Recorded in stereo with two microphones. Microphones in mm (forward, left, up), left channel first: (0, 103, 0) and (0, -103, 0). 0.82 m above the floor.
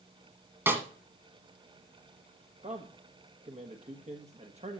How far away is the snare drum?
About 1.6 m.